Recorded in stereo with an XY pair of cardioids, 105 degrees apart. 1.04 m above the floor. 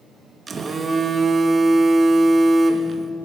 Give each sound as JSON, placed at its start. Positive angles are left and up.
{"t": 0.5, "sound": "a phone buzzing", "azimuth_deg": -30, "distance_m": 0.8}